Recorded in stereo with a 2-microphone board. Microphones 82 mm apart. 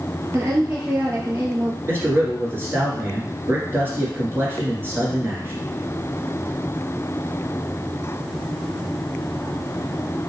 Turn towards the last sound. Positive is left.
turn(degrees=-30)  # may be behind; listen again after turning